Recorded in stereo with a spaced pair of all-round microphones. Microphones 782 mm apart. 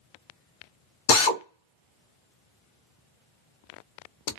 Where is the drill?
75° left (ahead or behind), 0.7 m.